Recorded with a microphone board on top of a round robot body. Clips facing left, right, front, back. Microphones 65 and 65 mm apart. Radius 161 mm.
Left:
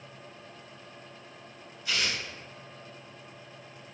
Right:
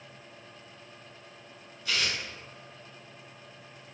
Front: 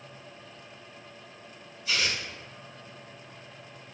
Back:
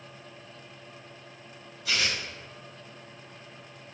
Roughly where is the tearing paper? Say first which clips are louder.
Even, even; behind.